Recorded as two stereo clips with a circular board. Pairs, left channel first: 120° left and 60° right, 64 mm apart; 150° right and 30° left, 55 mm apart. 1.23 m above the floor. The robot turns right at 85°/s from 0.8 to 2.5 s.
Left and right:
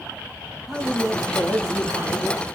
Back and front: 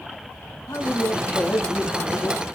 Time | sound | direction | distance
0.7 | a man speaking | 145° right | 2.5 m